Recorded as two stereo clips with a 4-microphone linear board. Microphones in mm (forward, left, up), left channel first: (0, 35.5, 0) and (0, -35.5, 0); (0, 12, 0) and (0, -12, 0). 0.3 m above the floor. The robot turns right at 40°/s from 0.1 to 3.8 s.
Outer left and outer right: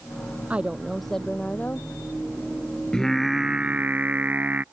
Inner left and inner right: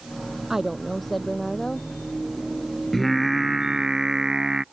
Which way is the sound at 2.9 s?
170° left.